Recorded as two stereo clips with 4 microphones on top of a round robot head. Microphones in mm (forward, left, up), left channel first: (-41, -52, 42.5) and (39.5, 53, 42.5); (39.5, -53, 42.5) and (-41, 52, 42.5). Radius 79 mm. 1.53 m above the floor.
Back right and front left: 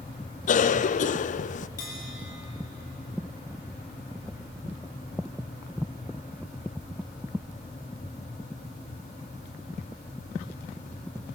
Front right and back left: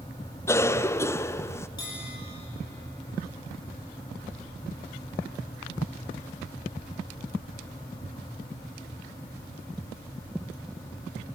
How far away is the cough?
About 0.5 m.